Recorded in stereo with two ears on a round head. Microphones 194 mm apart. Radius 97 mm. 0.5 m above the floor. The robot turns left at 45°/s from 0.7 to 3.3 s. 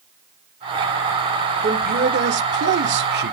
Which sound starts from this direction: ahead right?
A man speaking, at 1.6 s.